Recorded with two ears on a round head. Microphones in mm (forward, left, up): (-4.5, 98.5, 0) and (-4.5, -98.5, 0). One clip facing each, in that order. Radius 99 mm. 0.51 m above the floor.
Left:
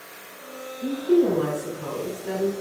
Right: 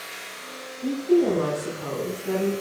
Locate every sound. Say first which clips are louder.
0.8 s a woman speaking: even; 55° left (ahead or behind), 4 m; by 2.5 s 75° left (ahead or behind), 4 m